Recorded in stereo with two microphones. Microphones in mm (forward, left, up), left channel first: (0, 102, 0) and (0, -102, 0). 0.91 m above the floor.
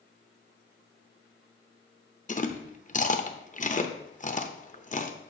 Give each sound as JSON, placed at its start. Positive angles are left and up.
{"t": 2.3, "sound": "chewing", "side_deg": 35, "distance_m": 0.8}